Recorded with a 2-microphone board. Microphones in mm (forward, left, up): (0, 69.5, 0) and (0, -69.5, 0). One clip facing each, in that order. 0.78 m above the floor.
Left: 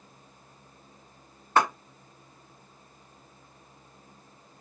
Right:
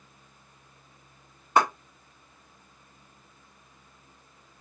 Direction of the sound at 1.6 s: 10° right (ahead or behind).